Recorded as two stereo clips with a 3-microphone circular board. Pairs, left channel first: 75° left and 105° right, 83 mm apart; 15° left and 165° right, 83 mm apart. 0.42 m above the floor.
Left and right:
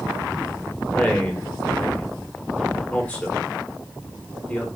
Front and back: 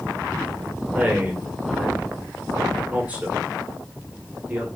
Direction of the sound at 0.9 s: 140° left.